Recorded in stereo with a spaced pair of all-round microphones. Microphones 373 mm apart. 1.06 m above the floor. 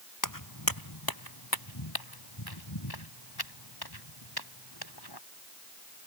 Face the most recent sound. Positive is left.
turn(degrees=80)